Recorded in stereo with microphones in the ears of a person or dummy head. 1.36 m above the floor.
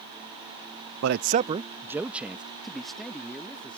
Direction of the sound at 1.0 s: 75° right (ahead or behind).